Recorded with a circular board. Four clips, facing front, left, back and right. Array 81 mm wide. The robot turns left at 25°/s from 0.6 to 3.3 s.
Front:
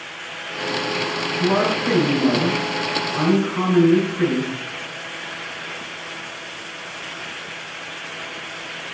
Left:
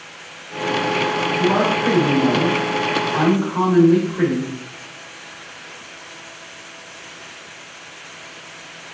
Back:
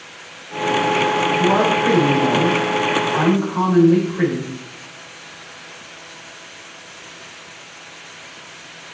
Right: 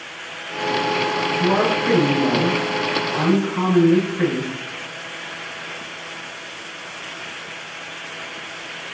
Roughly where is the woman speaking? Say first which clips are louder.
Left 1 dB, back 1 dB; behind.